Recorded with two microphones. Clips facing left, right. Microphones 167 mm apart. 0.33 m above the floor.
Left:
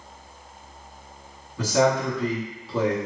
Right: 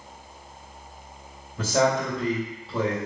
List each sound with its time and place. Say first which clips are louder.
1.6 s a man speaking: left 2 dB; 25° right (ahead or behind), 1.8 m